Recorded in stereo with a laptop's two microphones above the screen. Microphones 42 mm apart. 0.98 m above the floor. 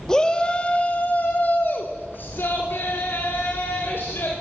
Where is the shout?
15° left (ahead or behind), 1.5 m; by 4.3 s 80° left, 4 m.